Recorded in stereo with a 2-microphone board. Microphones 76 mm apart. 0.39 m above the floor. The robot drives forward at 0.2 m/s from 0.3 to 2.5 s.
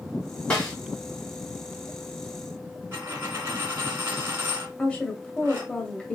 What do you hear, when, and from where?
0.5 s a snare drum: 15° left (ahead or behind), 2.5 m
2.9 s a dropped coin: 25° right (ahead or behind), 1.9 m
4.8 s a woman speaking: 15° left (ahead or behind), 1.0 m